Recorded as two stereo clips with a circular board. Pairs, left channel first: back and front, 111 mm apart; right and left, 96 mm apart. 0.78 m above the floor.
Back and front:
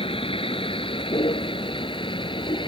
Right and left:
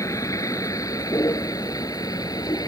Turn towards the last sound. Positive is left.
turn(degrees=-140)